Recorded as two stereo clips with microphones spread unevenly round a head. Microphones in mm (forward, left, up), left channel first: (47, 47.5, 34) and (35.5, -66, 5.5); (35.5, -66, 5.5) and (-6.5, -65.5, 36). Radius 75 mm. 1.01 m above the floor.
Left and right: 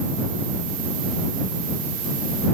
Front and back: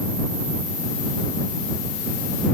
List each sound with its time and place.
Only background noise.